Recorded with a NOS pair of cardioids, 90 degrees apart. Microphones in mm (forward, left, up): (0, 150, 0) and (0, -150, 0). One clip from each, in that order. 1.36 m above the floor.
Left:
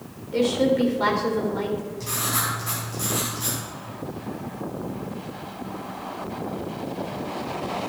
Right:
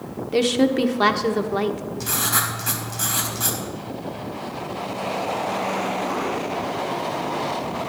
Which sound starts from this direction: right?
A woman speaking, at 0.3 s.